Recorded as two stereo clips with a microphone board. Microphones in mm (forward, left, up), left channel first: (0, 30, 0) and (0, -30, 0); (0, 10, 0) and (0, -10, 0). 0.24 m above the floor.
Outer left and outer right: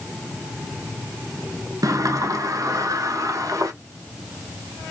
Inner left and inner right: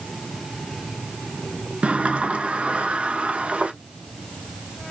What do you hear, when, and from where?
1.8 s a sliding door: 90° right, 0.5 m